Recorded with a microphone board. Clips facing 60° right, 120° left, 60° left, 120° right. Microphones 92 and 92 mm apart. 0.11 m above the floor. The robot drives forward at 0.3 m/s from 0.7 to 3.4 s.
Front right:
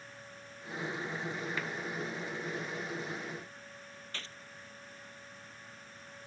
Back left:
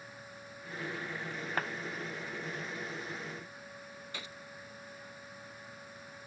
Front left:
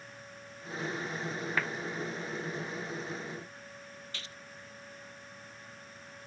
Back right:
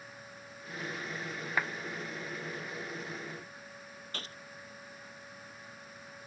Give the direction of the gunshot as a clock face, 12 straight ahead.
5 o'clock.